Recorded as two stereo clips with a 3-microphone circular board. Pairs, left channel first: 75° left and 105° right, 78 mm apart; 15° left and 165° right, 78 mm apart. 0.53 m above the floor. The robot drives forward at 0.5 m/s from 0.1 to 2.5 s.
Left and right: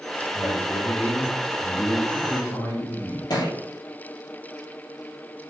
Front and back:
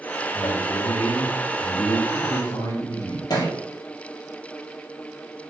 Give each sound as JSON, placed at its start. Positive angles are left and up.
{"t": 0.3, "sound": "a man speaking", "azimuth_deg": 20, "distance_m": 4.5}
{"t": 3.3, "sound": "a thud", "azimuth_deg": 45, "distance_m": 3.0}